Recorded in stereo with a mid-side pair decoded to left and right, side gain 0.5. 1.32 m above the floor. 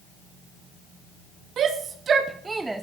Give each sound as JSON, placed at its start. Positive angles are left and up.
{"t": 1.6, "sound": "a shout", "azimuth_deg": -55, "distance_m": 1.4}